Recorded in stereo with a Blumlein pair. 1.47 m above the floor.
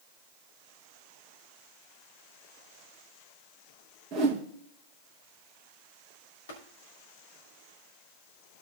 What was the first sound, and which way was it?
A whoosh, 35° right.